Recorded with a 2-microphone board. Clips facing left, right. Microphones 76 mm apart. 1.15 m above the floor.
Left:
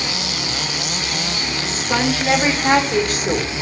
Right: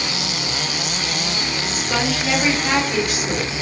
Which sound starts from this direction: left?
A woman speaking, at 1.6 s.